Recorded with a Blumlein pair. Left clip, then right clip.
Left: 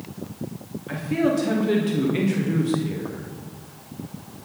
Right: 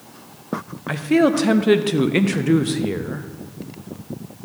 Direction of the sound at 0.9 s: 30° right.